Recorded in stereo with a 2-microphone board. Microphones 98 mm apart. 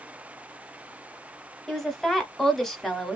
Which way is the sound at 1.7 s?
5° left (ahead or behind).